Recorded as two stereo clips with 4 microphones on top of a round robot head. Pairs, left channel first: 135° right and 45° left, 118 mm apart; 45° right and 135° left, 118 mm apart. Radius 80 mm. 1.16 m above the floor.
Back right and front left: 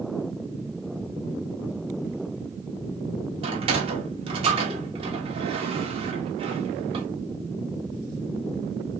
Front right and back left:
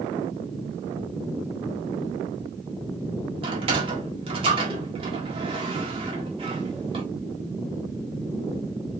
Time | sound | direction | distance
3.4 | a sliding door | 90° left | 1.9 m